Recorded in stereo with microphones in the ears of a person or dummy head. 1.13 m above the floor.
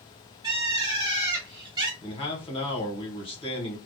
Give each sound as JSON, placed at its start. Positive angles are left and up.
{"t": 0.4, "sound": "a bird", "side_deg": -25, "distance_m": 0.9}
{"t": 2.0, "sound": "a man speaking", "side_deg": 30, "distance_m": 1.0}